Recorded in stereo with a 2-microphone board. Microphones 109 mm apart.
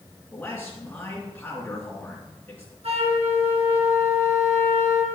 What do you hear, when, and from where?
0.3 s a man speaking: 15° left (ahead or behind), 2.5 m
2.8 s a flute: 70° right (ahead or behind), 3 m